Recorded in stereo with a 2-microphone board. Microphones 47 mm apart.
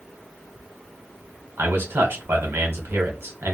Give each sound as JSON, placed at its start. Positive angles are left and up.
{"t": 1.6, "sound": "a man speaking", "side_deg": -55, "distance_m": 1.3}